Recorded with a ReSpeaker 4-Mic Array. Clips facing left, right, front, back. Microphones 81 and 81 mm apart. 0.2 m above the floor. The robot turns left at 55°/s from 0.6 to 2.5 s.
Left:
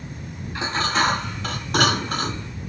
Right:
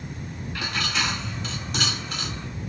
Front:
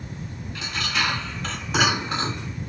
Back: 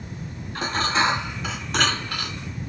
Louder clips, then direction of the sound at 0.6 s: Left 7 dB, back 5 dB; 145° left.